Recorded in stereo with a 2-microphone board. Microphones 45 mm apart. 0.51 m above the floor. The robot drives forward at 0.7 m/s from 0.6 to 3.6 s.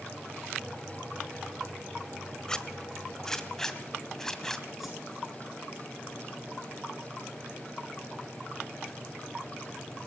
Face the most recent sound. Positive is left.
turn(degrees=0)  # may be behind; listen again after turning